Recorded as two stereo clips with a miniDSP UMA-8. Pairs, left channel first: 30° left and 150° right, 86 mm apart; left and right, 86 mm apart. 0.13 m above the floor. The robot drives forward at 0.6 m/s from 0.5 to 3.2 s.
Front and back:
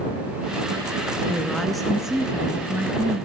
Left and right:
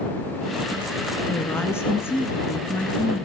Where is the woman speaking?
95° left, 1.3 m; by 3.3 s 150° left, 1.8 m.